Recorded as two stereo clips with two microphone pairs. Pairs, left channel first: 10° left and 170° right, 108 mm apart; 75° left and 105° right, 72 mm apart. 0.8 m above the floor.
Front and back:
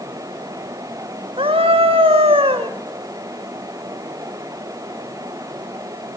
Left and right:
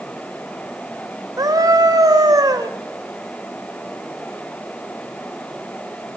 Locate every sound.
1.4 s a scream: 140° right, 2.5 m